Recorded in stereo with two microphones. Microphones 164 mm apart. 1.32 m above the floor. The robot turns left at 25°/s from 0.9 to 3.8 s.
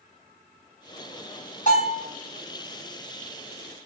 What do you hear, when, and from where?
1.7 s a bell: 50° left (ahead or behind), 1.3 m; by 2.0 s 45° left (ahead or behind), 1.3 m